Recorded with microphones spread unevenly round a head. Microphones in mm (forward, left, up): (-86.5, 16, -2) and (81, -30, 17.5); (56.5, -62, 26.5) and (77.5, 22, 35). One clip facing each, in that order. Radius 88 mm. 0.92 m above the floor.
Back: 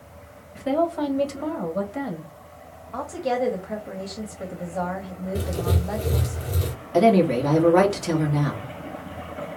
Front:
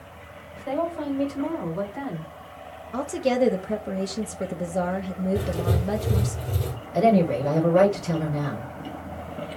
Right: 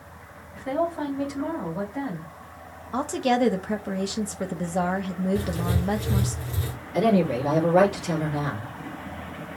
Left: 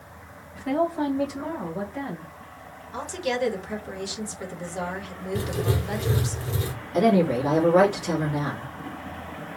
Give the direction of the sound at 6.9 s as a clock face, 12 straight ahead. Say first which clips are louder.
Back 2 dB, left 1 dB; 7 o'clock.